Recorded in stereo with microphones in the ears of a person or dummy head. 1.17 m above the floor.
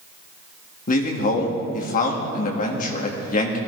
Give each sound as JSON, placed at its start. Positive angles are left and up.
{"t": 0.9, "sound": "a man speaking", "side_deg": 45, "distance_m": 1.9}